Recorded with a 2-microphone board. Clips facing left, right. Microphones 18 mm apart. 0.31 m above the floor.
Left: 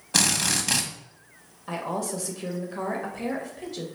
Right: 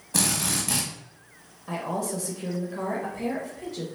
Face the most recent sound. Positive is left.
turn(degrees=20)  # may be behind; listen again after turning